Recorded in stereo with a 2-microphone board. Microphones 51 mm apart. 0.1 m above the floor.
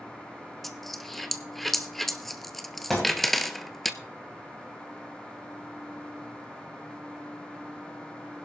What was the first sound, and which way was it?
A dropped coin, 5° left (ahead or behind).